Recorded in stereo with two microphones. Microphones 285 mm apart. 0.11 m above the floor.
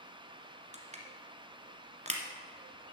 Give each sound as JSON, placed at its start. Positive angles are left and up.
{"t": 0.7, "sound": "crushing", "side_deg": -25, "distance_m": 1.5}